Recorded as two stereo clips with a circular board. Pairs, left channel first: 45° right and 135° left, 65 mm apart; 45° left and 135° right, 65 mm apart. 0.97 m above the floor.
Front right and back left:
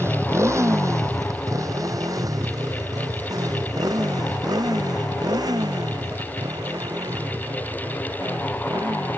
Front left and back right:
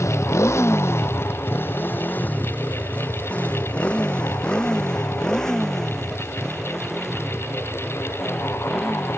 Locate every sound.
0.0 s a motorcycle: 85° left; by 9.2 s 140° left